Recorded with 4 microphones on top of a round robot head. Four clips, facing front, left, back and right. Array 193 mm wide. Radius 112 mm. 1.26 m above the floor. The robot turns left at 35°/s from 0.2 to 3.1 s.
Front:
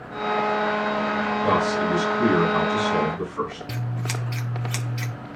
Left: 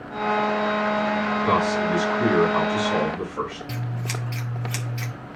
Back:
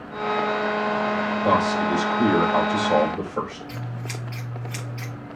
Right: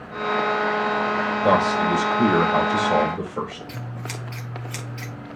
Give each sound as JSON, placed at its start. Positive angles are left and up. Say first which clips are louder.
{"t": 1.4, "sound": "a man speaking", "louder": "right 4 dB, back 2 dB", "azimuth_deg": -95, "distance_m": 5.5}
{"t": 3.7, "sound": "scissors", "louder": "left 3 dB, front 3 dB", "azimuth_deg": 5, "distance_m": 1.7}